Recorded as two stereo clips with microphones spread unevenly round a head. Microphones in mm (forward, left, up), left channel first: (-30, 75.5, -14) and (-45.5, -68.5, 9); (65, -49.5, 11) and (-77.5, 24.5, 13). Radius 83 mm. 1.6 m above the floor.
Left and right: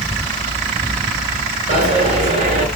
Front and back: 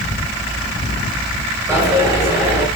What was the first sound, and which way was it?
A dropped coin, 135° right.